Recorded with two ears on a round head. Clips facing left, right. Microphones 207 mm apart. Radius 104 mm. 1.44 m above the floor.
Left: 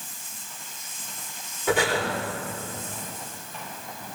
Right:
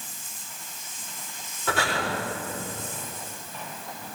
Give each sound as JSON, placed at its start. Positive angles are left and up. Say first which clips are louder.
{"t": 1.7, "sound": "breathing", "louder": "left 5 dB", "side_deg": 15, "distance_m": 4.5}